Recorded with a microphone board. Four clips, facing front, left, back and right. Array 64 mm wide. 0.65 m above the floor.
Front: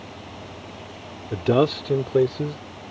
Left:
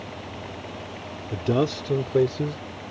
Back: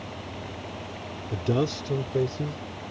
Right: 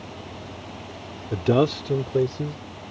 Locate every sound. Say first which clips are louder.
1.3 s a man speaking: right 3 dB, front 7 dB; 35° right; by 2.6 s 30° left